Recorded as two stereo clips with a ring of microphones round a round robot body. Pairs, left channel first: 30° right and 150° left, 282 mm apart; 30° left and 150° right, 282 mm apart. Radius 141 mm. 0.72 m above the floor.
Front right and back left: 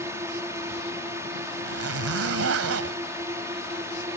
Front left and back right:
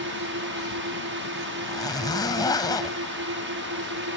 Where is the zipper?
105° left.